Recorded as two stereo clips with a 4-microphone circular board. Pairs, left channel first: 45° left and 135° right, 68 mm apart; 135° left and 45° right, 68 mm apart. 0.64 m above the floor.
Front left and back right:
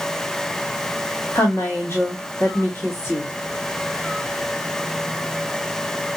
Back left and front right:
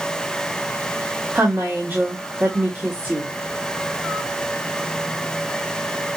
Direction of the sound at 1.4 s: 5° left.